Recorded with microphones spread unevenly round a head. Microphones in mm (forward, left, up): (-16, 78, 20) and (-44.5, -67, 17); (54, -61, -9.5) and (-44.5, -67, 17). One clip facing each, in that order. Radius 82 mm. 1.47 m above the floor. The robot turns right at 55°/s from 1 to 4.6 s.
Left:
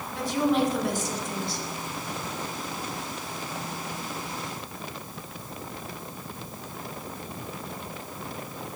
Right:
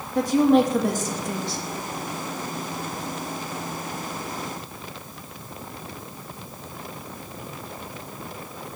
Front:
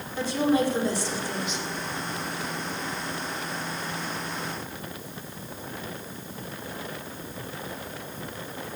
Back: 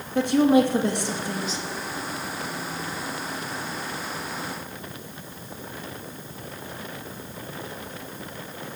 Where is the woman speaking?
150° right, 3 m; by 1.6 s 115° right, 3 m.